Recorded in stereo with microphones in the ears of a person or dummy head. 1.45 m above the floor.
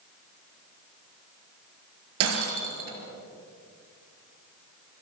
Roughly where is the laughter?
No laughter in this recording.